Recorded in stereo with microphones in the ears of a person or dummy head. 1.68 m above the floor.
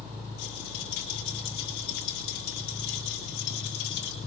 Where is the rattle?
70° left (ahead or behind), 6.5 m.